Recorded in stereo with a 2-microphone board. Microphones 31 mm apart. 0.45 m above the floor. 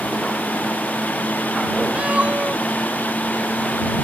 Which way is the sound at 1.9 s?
40° right (ahead or behind).